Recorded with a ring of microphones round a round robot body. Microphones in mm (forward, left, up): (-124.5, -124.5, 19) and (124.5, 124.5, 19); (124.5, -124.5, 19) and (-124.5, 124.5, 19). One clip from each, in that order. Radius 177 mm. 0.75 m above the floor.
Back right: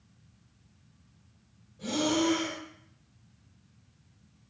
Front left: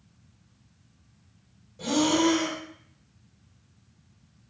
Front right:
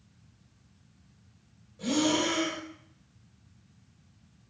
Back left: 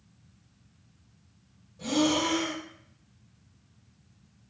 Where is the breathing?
30° left, 1.3 m.